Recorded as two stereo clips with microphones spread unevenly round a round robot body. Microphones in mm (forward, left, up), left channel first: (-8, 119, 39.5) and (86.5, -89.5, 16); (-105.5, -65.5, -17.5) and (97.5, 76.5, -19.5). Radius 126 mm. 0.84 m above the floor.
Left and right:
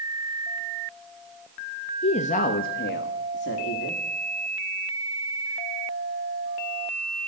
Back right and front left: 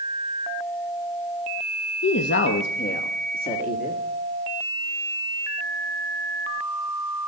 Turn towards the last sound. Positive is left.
turn(degrees=155)